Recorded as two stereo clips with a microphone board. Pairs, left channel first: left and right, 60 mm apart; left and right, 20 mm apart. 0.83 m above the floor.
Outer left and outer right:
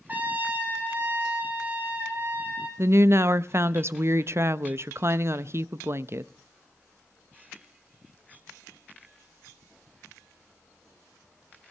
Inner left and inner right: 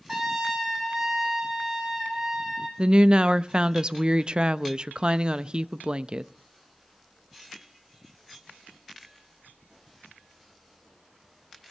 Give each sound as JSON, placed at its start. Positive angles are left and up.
{"t": 0.1, "sound": "a trumpet", "side_deg": -25, "distance_m": 4.0}
{"t": 2.8, "sound": "a woman speaking", "side_deg": -45, "distance_m": 0.5}